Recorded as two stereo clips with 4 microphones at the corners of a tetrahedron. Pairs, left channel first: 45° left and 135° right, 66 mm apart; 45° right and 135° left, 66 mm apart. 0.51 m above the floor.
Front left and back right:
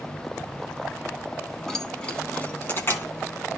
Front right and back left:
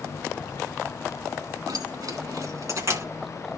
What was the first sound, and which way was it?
Keys jangling, 125° left.